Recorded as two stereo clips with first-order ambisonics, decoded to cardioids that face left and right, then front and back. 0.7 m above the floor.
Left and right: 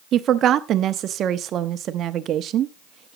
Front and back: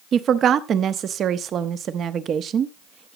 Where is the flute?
No flute in this recording.